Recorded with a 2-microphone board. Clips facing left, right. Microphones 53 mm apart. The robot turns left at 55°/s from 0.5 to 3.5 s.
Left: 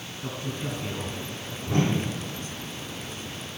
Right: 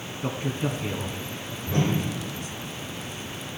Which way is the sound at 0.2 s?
30° right (ahead or behind).